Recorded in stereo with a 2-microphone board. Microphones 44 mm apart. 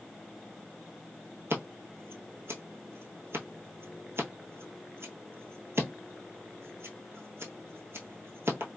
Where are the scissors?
65° right (ahead or behind), 1.0 m.